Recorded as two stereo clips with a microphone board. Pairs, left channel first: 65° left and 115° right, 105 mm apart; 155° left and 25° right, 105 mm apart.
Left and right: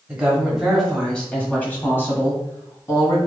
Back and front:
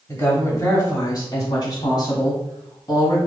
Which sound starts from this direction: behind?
A woman speaking, at 0.1 s.